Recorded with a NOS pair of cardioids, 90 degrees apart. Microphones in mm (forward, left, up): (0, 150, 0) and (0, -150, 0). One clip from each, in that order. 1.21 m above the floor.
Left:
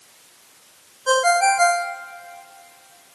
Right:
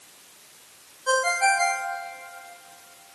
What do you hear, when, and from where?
1.1 s a ringtone: 40° left, 1.2 m